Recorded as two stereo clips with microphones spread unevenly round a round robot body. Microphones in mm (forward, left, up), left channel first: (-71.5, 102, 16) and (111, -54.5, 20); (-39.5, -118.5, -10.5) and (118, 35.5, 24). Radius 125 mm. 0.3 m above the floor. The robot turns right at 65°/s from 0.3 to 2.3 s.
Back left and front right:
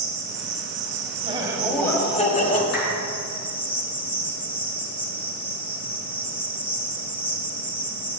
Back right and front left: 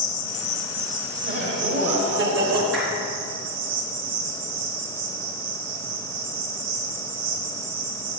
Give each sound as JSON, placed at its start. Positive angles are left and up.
{"t": 0.0, "sound": "an insect", "azimuth_deg": -70, "distance_m": 1.6}
{"t": 1.2, "sound": "laughter", "azimuth_deg": 20, "distance_m": 1.5}
{"t": 2.7, "sound": "a clap", "azimuth_deg": 140, "distance_m": 3.5}